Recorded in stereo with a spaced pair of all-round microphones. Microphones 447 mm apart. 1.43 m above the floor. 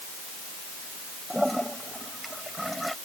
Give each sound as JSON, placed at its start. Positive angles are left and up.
{"t": 1.3, "sound": "a toilet flushing", "side_deg": 0}